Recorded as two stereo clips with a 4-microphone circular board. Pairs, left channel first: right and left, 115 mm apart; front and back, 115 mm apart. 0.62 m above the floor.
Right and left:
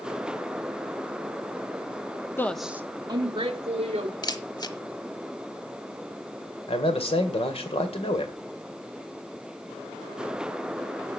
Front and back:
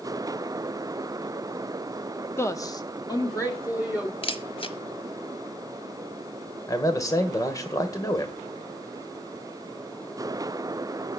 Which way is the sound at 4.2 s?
35° right.